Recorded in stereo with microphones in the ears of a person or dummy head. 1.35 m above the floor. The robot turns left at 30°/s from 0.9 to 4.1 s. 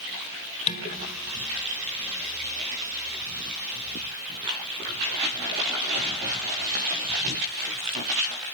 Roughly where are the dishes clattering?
Left.